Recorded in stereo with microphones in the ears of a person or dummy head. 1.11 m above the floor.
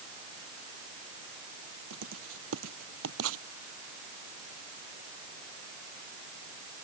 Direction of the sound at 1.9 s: 80° right.